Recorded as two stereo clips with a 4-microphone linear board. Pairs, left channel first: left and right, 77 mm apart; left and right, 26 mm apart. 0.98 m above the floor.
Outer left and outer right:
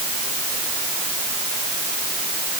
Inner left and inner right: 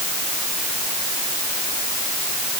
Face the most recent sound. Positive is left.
No sound to turn to.